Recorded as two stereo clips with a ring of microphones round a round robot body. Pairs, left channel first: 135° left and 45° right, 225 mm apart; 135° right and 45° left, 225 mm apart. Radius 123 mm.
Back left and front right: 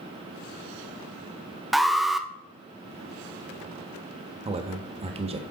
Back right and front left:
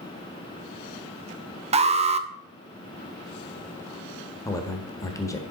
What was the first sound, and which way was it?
An alarm, 45° left.